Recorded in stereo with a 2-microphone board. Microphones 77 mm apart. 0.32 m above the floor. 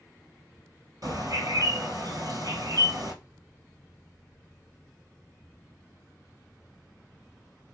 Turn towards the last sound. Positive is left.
turn(degrees=-55)  # may be behind; listen again after turning